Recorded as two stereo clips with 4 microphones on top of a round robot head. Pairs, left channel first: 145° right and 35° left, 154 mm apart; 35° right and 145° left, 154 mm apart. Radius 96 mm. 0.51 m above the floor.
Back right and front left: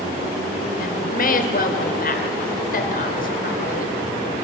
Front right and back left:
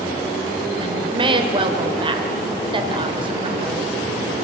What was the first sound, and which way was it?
A woman speaking, 160° right.